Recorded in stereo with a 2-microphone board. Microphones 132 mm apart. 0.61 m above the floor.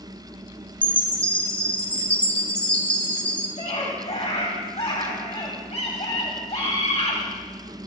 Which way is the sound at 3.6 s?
55° left (ahead or behind).